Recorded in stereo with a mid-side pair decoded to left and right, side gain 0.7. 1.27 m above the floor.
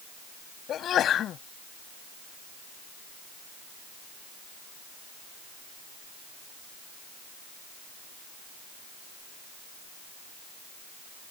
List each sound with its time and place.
0.7 s a sneeze: 45° left